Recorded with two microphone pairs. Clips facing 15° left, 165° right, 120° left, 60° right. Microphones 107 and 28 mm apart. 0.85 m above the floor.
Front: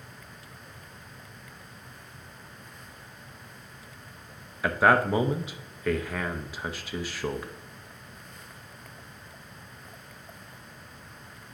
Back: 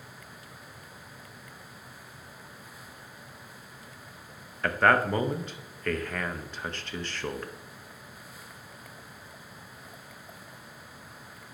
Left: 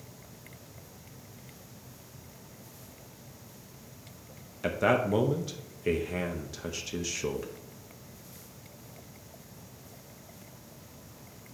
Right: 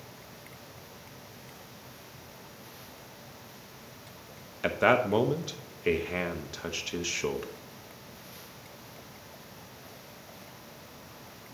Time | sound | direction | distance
4.6 | a man speaking | 45° right | 0.6 m